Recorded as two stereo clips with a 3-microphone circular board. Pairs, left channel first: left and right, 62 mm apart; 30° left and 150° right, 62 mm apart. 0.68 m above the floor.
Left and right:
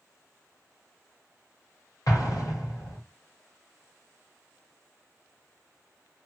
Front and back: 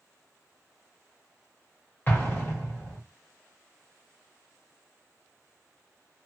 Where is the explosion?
90° left, 3 m.